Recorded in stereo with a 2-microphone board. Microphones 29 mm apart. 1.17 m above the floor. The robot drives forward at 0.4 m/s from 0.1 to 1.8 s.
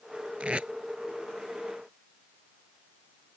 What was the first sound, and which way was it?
Tape being pulled, 40° right (ahead or behind).